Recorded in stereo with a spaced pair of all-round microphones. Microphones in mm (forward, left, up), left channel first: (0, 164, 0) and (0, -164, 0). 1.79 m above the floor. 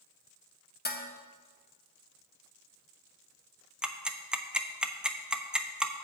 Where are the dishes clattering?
30° left (ahead or behind), 1.1 m.